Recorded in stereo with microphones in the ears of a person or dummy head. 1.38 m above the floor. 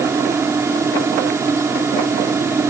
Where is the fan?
10° right (ahead or behind).